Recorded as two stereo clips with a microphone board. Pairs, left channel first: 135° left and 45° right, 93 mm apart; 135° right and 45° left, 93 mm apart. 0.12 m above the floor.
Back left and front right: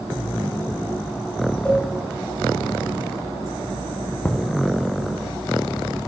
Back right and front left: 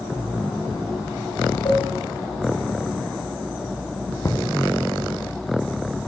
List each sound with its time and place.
1.6 s a cowbell: 145° right, 7.5 m
4.2 s knocking: 160° right, 0.8 m